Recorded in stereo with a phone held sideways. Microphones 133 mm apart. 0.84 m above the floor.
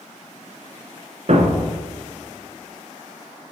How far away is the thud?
About 1.5 m.